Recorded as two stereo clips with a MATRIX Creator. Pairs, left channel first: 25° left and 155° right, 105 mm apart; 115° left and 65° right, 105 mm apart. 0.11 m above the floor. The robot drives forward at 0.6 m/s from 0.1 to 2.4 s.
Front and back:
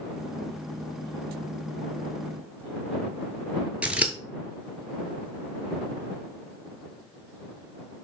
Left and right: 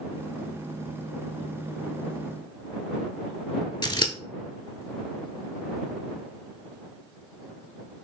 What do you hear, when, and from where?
3.8 s scissors: 130° left, 0.6 m